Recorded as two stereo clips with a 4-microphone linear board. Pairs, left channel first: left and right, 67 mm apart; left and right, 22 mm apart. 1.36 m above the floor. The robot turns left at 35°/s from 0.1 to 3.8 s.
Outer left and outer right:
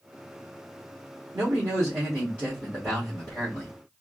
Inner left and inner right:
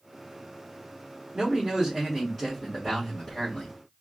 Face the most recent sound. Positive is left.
turn(degrees=140)